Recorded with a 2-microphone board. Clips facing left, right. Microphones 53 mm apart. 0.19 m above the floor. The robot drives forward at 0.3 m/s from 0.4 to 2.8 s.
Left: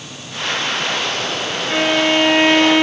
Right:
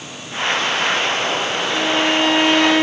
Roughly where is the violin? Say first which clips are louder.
Left 4 dB; left.